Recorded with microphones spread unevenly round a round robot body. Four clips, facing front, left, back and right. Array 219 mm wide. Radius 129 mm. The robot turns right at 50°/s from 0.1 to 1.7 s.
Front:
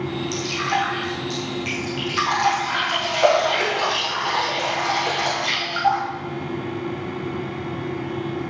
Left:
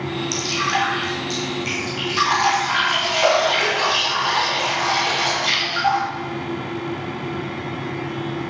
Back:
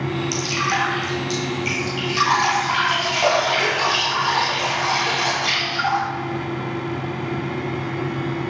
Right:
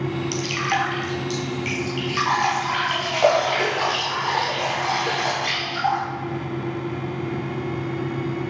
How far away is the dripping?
About 2.5 m.